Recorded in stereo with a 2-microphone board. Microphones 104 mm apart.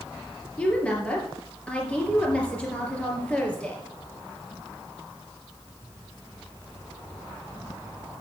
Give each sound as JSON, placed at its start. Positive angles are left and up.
{"t": 0.6, "sound": "a woman speaking", "side_deg": 10, "distance_m": 3.0}